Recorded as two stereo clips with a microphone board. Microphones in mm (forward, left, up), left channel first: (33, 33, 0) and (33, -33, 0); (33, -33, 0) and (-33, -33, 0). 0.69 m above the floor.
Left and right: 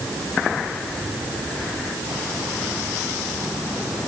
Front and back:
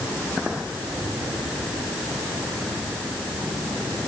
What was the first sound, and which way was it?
Only background noise.